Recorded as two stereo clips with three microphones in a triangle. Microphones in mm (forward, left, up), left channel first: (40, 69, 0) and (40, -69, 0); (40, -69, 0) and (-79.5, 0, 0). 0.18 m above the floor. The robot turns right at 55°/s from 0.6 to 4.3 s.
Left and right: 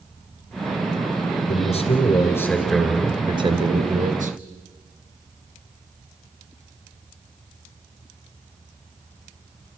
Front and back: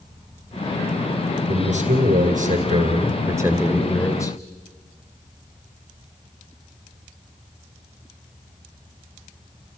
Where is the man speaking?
115° left, 2.5 m; by 4.4 s 90° right, 2.5 m.